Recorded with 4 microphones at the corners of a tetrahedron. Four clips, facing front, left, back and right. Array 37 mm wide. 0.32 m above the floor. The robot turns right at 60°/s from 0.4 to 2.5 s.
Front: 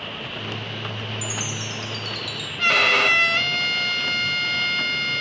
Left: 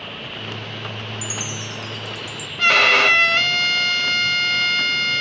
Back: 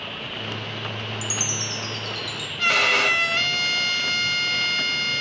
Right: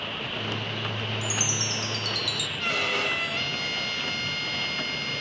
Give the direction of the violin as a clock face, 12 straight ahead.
9 o'clock.